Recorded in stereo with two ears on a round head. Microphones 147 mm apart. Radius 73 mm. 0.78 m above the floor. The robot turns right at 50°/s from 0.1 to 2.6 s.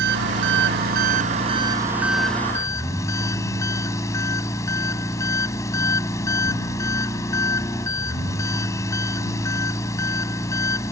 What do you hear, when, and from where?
0.0 s an engine running: 105° right; by 10.9 s 20° left